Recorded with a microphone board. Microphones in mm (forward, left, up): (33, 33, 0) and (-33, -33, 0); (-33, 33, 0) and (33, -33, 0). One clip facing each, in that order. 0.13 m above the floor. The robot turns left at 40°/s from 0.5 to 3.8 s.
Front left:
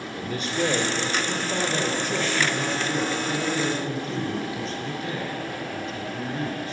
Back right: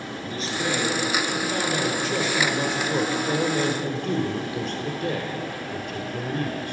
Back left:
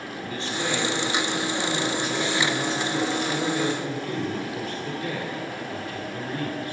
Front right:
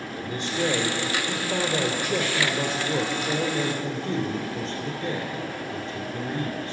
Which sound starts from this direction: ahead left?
A man speaking, at 0.1 s.